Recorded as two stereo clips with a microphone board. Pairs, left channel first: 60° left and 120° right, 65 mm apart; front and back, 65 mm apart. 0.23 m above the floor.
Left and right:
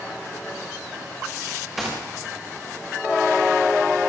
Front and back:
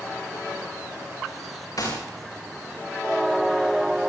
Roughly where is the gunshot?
Ahead right.